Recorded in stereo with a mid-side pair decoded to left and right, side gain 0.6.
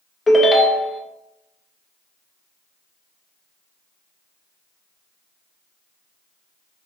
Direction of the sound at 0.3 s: 20° left.